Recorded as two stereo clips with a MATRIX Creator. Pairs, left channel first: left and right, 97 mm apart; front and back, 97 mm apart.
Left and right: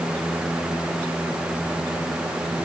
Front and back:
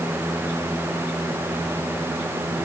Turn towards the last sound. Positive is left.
No sound to turn to.